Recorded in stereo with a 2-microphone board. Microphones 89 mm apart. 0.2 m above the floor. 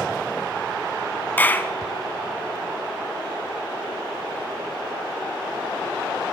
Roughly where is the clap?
Left.